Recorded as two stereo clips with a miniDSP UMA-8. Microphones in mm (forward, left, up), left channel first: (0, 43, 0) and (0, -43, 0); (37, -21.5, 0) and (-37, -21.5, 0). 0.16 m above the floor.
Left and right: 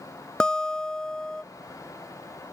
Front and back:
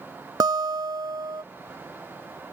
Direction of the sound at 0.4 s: 170° left.